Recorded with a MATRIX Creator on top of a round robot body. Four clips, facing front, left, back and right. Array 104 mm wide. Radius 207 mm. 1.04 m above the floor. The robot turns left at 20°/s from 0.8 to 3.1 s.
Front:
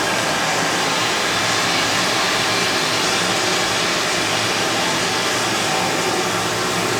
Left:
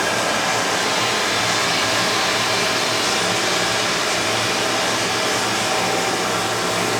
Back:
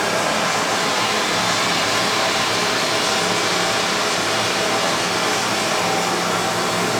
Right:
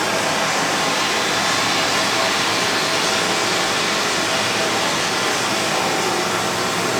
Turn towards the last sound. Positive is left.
turn(degrees=-140)